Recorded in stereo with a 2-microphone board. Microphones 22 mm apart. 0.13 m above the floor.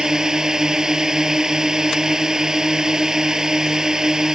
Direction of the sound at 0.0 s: 25° right (ahead or behind).